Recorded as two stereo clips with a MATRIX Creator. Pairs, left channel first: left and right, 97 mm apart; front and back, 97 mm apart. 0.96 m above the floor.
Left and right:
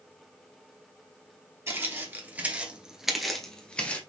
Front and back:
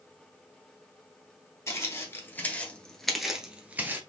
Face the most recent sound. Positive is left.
turn(degrees=145)